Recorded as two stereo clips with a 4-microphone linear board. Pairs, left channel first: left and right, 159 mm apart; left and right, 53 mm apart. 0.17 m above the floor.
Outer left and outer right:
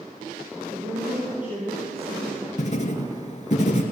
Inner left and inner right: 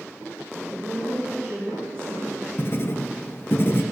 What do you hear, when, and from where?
0.7 s a woman speaking: 60° right (ahead or behind), 3.5 m; by 2.5 s 25° right (ahead or behind), 1.6 m
2.6 s writing: 50° left (ahead or behind), 1.1 m